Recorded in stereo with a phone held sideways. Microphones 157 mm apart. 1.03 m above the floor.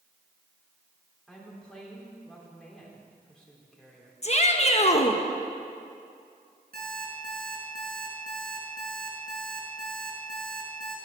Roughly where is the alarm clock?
Right.